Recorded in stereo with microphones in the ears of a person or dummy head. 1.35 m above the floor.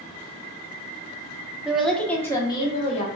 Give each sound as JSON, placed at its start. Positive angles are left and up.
{"t": 1.6, "sound": "a woman speaking", "side_deg": -5, "distance_m": 0.9}